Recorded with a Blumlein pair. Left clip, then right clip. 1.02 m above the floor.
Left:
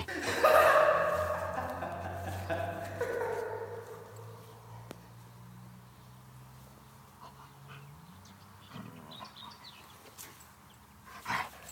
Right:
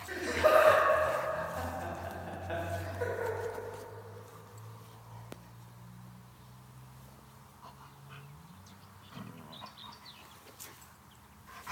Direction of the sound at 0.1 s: 15° left.